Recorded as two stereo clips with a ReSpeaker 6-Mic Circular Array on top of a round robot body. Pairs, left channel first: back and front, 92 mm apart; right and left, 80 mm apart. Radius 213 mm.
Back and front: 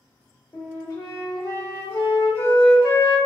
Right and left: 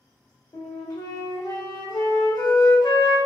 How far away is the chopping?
No chopping in this recording.